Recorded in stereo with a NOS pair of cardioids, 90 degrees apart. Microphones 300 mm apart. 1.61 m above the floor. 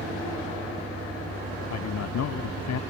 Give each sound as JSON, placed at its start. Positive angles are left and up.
{"t": 1.7, "sound": "a man speaking", "azimuth_deg": 65}